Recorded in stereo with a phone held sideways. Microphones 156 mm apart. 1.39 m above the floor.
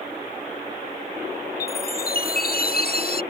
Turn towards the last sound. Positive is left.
turn(degrees=70)  # may be behind; listen again after turning